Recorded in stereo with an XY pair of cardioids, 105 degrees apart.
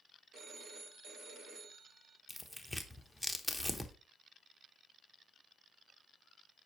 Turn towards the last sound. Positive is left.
turn(degrees=0)